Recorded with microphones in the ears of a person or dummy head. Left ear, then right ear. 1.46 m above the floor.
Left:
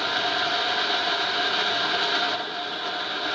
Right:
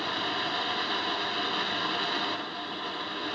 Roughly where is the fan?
Left.